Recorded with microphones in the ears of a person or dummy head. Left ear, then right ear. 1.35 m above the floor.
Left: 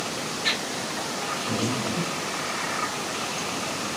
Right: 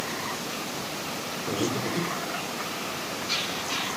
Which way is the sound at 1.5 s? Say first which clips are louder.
Left 1 dB; 35° right (ahead or behind).